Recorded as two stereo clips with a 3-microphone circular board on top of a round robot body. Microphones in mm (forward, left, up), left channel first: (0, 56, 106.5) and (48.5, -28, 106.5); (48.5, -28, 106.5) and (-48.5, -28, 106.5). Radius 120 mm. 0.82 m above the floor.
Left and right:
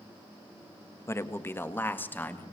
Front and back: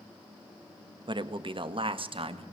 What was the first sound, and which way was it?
A man speaking, 175° left.